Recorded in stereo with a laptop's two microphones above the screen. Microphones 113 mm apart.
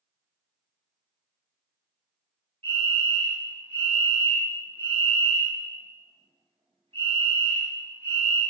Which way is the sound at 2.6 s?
50° right (ahead or behind).